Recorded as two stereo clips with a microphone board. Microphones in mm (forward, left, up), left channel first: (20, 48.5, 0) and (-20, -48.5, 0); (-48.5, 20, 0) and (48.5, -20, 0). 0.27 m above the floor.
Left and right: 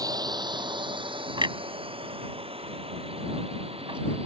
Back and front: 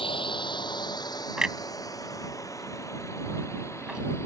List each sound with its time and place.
0.0 s a drone: 165° right; by 4.3 s 135° right
1.4 s a clunk: 105° right